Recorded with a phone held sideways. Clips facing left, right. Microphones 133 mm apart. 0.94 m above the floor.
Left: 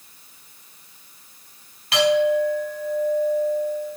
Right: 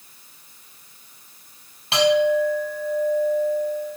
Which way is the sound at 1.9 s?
25° right (ahead or behind).